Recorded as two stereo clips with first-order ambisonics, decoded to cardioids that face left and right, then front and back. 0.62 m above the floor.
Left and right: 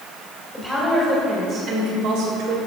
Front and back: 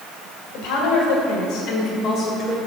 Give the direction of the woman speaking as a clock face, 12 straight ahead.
12 o'clock.